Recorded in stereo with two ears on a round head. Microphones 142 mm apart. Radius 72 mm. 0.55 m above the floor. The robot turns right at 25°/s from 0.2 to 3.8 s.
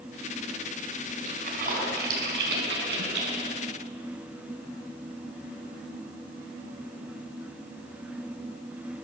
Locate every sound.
1.2 s a splash: 50° right (ahead or behind), 6.5 m; by 3.4 s 70° right (ahead or behind), 6.5 m